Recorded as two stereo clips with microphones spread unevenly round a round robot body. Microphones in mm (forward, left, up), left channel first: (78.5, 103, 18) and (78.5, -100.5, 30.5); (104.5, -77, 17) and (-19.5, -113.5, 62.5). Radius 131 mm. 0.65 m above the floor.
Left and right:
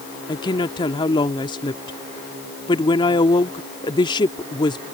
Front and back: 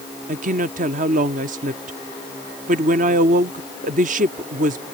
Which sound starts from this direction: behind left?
A woman speaking, at 0.3 s.